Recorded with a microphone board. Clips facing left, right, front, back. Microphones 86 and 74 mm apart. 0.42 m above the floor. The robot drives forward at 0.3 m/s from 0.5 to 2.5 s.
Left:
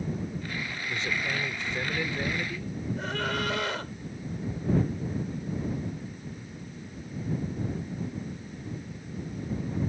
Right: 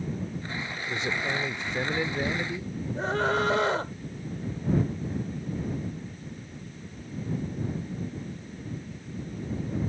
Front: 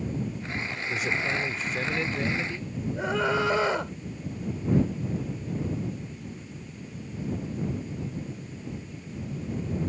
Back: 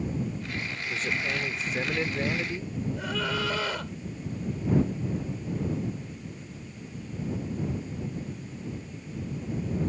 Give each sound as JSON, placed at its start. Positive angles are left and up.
{"t": 0.9, "sound": "a man speaking", "azimuth_deg": -65}
{"t": 3.0, "sound": "a scream", "azimuth_deg": -50}